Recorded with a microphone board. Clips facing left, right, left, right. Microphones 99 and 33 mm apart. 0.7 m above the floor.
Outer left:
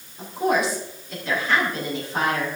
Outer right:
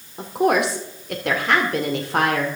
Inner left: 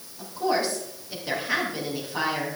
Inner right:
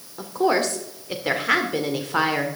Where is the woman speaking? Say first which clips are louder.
Outer right 3 dB, inner right 4 dB; 70° right (ahead or behind), 2 m.